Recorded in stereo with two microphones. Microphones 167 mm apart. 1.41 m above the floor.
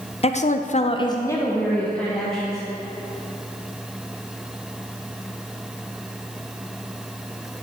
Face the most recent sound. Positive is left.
turn(degrees=5)  # may be behind; listen again after turning